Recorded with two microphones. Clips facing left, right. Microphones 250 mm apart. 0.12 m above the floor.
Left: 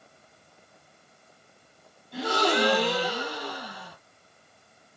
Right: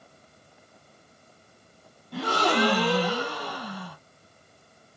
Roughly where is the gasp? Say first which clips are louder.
Even; right.